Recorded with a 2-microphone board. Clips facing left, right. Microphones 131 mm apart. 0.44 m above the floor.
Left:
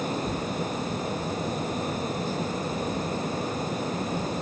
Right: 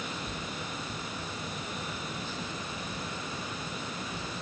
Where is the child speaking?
No child speaking in this recording.